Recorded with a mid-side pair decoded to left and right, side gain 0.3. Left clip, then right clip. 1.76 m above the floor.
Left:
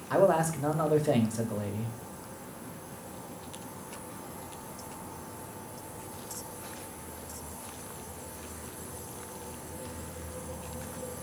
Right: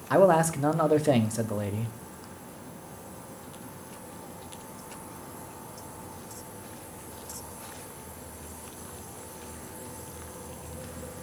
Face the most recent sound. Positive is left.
turn(degrees=-55)